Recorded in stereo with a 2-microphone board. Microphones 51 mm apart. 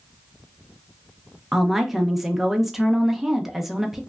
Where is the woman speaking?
5° right (ahead or behind), 0.5 m.